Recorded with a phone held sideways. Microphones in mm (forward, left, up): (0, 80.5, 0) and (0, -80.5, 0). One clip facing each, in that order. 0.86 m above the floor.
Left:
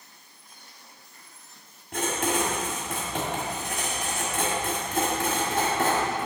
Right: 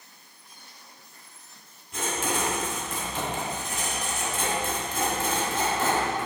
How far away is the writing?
About 1.5 m.